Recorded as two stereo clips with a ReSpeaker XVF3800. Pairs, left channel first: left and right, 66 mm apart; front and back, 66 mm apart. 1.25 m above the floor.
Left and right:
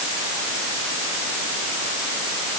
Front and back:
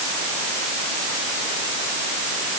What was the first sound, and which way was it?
Only background noise.